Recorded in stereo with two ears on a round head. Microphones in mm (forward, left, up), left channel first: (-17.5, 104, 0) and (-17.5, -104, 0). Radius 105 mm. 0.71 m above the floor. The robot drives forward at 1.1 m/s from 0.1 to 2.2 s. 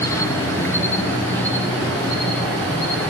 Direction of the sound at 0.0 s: 10° left (ahead or behind).